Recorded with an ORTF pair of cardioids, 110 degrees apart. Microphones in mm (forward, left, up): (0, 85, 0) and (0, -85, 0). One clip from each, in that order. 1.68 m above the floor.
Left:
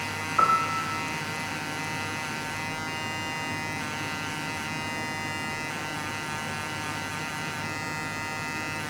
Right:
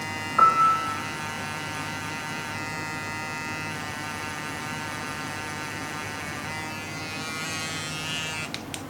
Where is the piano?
10° right, 1.6 m.